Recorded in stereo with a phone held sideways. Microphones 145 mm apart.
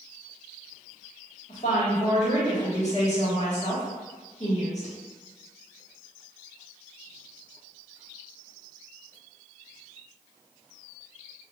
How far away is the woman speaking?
About 1.8 m.